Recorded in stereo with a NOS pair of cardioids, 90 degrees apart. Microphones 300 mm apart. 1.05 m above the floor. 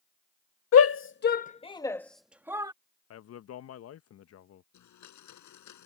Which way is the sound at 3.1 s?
55° left.